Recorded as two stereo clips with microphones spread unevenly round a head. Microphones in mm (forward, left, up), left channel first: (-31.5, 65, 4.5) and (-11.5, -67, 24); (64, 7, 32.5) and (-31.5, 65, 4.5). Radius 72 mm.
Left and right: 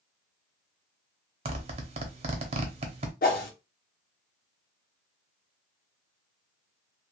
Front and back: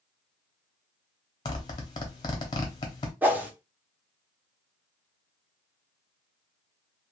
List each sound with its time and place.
1.4 s a zipper: 65° right, 0.8 m
3.2 s a whoosh: 70° left, 0.9 m